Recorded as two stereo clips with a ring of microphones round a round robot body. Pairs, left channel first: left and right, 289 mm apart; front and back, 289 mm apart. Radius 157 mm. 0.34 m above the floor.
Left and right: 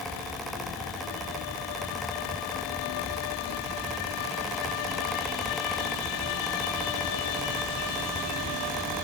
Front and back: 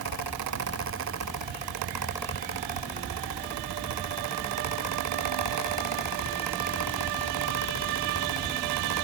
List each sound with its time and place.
Only background noise.